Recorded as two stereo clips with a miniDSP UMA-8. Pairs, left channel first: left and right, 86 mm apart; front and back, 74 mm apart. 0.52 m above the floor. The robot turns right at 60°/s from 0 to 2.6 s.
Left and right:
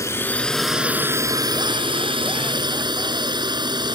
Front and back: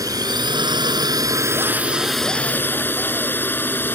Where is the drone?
145° left; by 4.0 s 60° right.